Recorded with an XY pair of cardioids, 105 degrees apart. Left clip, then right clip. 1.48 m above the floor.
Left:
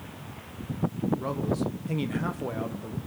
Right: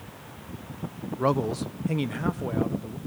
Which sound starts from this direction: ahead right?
A man speaking, at 1.2 s.